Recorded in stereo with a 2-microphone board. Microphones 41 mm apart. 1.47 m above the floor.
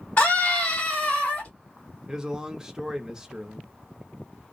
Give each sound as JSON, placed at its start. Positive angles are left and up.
{"t": 0.2, "sound": "a scream", "side_deg": 55, "distance_m": 1.1}
{"t": 2.1, "sound": "a man speaking", "side_deg": -15, "distance_m": 0.6}